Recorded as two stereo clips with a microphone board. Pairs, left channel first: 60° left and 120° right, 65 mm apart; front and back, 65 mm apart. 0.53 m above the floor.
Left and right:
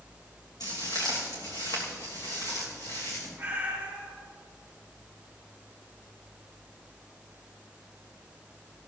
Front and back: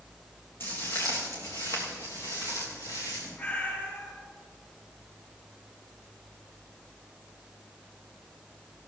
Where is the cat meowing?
55° right, 4.5 m.